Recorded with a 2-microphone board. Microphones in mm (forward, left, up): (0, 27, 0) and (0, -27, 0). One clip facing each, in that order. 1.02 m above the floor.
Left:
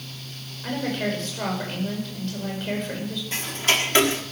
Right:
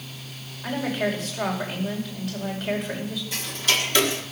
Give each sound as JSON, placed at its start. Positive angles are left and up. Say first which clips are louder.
{"t": 0.6, "sound": "a woman speaking", "louder": "right 1 dB", "side_deg": -5, "distance_m": 5.0}
{"t": 3.3, "sound": "ticking", "louder": "left 2 dB", "side_deg": 35, "distance_m": 1.6}